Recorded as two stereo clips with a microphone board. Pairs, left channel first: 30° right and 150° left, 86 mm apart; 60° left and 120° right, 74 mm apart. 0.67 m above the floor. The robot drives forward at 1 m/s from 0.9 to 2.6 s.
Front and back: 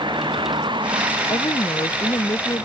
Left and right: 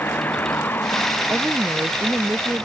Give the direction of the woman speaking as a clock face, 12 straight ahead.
2 o'clock.